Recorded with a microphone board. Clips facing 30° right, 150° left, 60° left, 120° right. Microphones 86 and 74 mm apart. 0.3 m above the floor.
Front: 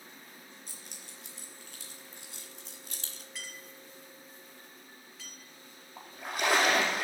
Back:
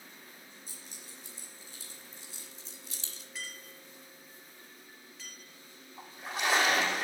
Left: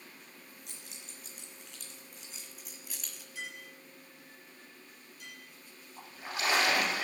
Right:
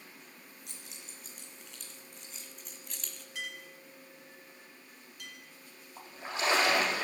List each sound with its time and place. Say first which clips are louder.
0.7 s keys jangling: front 1 dB, even; 30° right, 3.5 m; by 3.2 s 20° right, 1.2 m
3.4 s a clink: back 2 dB, right 1 dB; 120° right, 3.5 m
6.0 s a splash: front 2 dB, right 1 dB; 60° right, 4.5 m